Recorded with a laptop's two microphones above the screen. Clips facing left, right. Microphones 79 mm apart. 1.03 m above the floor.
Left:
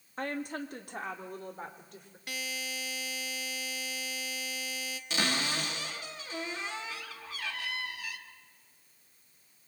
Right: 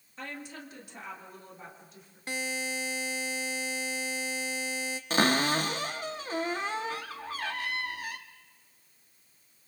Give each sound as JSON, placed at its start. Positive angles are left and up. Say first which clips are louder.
{"t": 0.2, "sound": "a woman speaking", "louder": "left 6 dB", "side_deg": 50, "distance_m": 1.6}
{"t": 2.3, "sound": "a buzzer", "louder": "right 5 dB", "side_deg": -30, "distance_m": 1.0}
{"t": 5.1, "sound": "a cupboard door", "louder": "right 7 dB", "side_deg": -40, "distance_m": 1.3}